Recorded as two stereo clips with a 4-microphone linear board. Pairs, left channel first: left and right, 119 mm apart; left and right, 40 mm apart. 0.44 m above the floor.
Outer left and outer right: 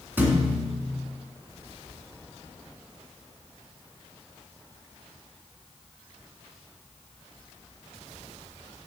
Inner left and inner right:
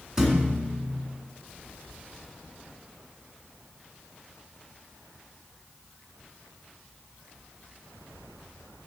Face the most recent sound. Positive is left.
turn(degrees=-15)  # may be behind; listen again after turning